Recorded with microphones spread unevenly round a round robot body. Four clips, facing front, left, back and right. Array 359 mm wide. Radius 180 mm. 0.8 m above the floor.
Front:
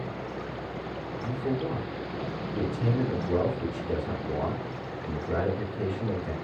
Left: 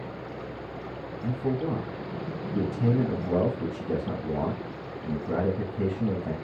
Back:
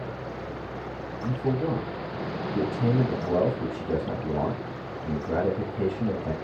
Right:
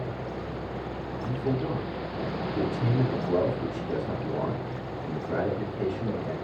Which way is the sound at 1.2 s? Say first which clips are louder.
Left 1 dB, back 4 dB; 145° left.